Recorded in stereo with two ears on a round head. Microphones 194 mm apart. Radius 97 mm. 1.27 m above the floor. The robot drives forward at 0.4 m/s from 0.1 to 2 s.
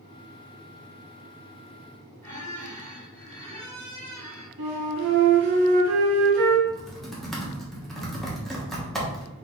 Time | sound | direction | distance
2.2 | a squeak | 15° left (ahead or behind) | 1.9 m
4.6 | a flute | 65° right (ahead or behind) | 1.8 m
6.7 | typing on a keyboard | centre (ahead or behind) | 1.2 m